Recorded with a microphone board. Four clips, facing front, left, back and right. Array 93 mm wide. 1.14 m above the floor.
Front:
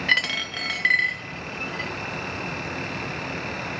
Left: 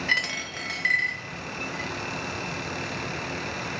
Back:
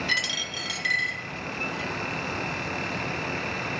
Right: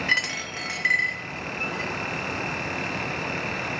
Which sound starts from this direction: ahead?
A dropped coin, at 0.1 s.